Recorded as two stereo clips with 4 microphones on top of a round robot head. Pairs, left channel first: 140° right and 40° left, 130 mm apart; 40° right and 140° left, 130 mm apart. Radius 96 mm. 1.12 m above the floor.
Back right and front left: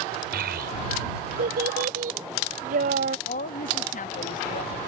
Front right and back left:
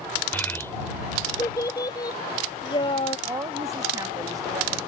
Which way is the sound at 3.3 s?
160° right.